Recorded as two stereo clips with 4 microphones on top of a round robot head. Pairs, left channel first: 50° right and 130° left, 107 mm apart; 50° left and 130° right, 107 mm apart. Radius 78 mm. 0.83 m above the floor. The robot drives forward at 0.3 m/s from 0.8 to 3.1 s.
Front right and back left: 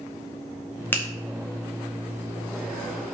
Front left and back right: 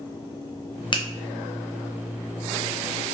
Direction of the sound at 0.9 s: 20° left.